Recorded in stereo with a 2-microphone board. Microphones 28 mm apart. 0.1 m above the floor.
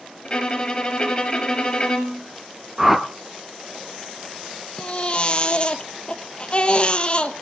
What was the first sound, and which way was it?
A violin, 30° left (ahead or behind).